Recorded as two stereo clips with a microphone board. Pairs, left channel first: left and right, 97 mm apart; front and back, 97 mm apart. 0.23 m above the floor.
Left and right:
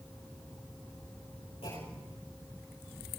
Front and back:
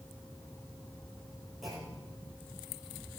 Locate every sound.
1.6 s a clunk: 95° left, 9.5 m